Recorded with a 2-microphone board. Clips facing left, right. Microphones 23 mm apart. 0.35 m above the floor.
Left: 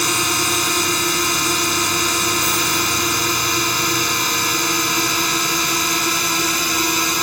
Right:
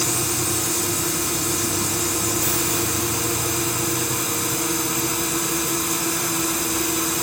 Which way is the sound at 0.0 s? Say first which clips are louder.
Left 6 dB; 45° left (ahead or behind).